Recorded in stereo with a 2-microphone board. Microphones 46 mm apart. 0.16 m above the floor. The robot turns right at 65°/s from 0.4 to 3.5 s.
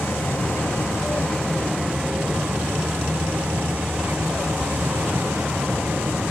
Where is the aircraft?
90° left; by 6.3 s 65° right.